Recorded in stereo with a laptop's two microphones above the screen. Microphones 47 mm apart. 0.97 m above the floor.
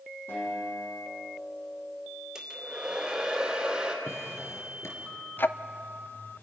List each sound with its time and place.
0.3 s a guitar: 60° left (ahead or behind), 7 m
2.4 s a hair dryer: 15° right (ahead or behind), 2.5 m
4.0 s a drawer: 75° left (ahead or behind), 4 m
5.4 s ticking: 45° left (ahead or behind), 0.6 m